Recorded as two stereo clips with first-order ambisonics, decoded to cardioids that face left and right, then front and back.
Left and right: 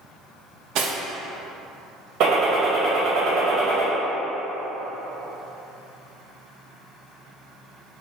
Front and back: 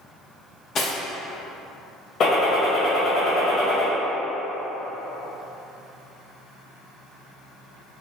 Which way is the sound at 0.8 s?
60° right.